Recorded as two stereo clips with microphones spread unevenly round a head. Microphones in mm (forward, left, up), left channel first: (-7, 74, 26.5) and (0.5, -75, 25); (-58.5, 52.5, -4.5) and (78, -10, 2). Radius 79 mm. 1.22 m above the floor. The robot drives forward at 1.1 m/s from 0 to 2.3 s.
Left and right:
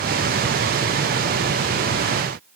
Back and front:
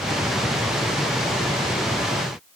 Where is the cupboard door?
I don't hear a cupboard door.